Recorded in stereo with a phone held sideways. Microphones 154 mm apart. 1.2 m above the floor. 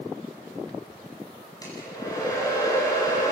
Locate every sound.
1.6 s a hair dryer: 20° left (ahead or behind), 9.5 m